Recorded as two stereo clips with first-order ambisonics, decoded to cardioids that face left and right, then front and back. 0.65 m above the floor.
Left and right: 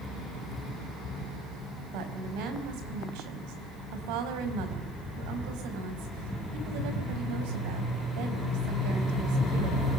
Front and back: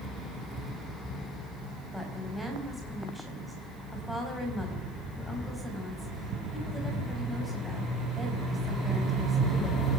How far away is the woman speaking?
About 4.5 m.